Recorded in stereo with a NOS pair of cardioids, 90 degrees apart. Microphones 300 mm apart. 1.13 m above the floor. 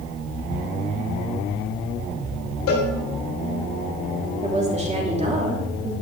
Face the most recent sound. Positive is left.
turn(degrees=-20)